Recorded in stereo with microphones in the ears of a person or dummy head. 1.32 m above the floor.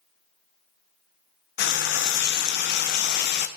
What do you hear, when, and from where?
1.6 s frying: 55° left (ahead or behind), 0.7 m